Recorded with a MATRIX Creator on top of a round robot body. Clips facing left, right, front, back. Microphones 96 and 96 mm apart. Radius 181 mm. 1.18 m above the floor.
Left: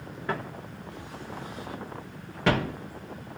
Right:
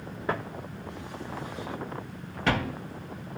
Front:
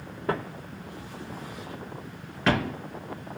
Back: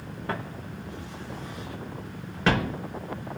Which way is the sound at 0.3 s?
15° right.